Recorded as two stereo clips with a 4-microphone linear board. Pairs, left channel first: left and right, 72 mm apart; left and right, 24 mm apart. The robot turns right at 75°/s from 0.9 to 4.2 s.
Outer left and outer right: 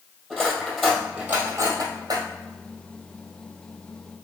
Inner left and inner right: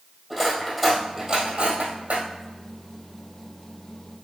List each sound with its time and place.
0.3 s cutlery clinking: 5° left (ahead or behind), 1.8 m; by 2.3 s 65° right (ahead or behind), 1.8 m